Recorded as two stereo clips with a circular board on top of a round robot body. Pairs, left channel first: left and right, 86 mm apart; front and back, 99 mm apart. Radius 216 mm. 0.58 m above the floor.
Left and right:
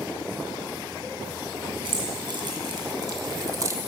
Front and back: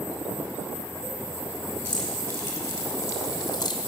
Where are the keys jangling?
75° right, 2.5 m; by 3.8 s 40° right, 1.1 m.